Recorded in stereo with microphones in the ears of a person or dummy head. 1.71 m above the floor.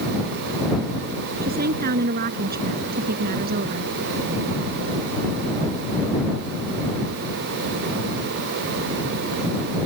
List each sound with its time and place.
1.4 s a woman speaking: 55° right (ahead or behind); by 3.9 s 50° right (ahead or behind)